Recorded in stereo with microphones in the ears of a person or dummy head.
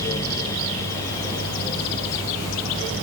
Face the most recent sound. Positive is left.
No sound to turn to.